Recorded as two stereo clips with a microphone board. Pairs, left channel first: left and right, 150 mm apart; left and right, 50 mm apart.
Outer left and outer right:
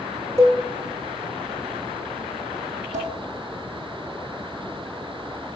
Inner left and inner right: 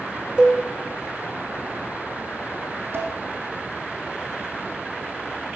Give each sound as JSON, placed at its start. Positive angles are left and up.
{"t": 0.4, "sound": "a cowbell", "side_deg": -20, "distance_m": 3.0}
{"t": 2.9, "sound": "dishes clattering", "side_deg": -60, "distance_m": 4.5}